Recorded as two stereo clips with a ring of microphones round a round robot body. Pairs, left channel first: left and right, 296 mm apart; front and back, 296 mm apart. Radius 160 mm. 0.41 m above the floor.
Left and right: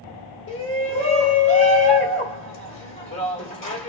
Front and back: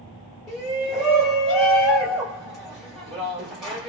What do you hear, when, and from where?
0.5 s a shout: 90° left, 1.7 m